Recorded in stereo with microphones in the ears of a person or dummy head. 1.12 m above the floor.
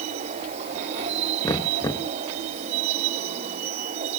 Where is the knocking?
20° left (ahead or behind).